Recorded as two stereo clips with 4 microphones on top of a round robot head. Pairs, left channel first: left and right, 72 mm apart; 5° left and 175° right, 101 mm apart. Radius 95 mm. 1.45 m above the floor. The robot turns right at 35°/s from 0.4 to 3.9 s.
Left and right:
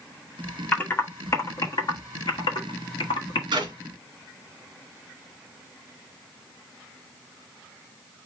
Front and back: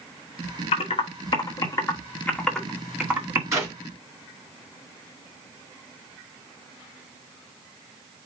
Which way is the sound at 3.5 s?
110° right.